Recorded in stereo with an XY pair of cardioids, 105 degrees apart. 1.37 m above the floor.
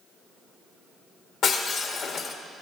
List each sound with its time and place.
1.4 s breaking glass: 65° left, 1.4 m